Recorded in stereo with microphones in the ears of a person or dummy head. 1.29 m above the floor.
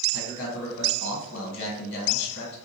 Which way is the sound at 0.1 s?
65° left (ahead or behind).